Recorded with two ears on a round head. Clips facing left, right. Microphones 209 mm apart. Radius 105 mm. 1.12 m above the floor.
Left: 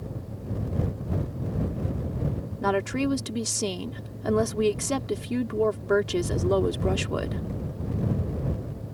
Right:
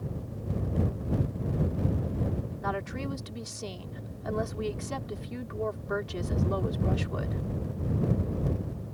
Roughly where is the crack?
No crack in this recording.